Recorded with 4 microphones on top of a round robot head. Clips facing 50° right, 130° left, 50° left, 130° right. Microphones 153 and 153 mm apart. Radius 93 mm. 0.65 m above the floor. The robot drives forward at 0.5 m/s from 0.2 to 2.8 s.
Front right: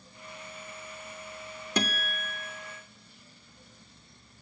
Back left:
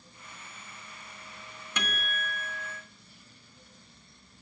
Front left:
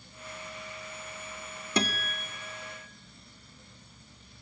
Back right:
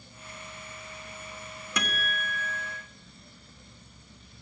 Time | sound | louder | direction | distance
1.8 | a guitar | front right 5 dB, front left 3 dB | 5° right | 1.6 m